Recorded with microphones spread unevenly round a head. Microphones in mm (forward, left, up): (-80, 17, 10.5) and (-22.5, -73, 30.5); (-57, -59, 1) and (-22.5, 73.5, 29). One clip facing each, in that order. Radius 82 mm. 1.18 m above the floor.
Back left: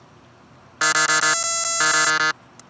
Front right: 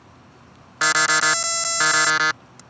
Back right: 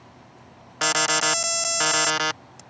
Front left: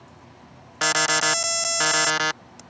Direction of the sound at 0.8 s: 170° right.